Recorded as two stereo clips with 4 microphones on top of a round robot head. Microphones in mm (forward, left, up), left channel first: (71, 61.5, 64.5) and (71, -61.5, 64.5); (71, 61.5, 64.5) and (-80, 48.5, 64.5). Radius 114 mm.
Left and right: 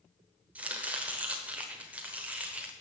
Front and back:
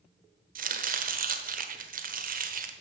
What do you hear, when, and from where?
0.6 s chopping: 170° right, 1.1 m